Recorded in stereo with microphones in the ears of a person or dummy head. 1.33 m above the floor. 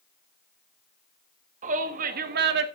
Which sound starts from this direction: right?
A shout, at 1.6 s.